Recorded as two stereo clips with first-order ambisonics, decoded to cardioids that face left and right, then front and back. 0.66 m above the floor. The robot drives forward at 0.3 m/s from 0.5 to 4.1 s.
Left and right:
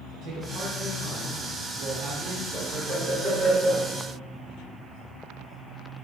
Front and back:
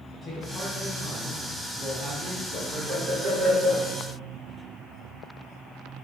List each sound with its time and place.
0.2 s a man speaking: 60° right, 0.8 m; by 2.4 s 135° right, 0.8 m
2.5 s laughter: 165° left, 1.5 m